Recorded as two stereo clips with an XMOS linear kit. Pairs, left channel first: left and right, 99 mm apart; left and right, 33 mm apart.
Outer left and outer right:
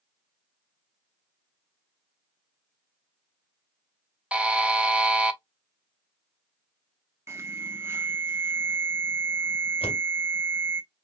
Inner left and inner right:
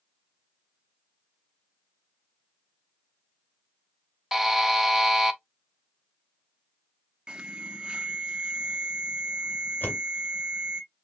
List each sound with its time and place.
4.3 s a buzzer: 10° right (ahead or behind), 0.6 m
7.3 s an alarm: 25° right (ahead or behind), 0.8 m
9.8 s a door slam: 60° left (ahead or behind), 1.7 m